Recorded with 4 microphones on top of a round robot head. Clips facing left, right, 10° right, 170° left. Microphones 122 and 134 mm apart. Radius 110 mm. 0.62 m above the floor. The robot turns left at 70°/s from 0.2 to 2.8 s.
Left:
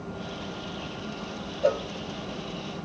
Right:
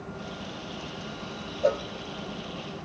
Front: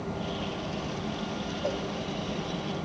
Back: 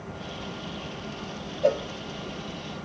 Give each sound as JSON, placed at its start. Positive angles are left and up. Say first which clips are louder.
{"t": 1.6, "sound": "a cowbell", "louder": "left 1 dB, back 10 dB", "azimuth_deg": 180, "distance_m": 0.5}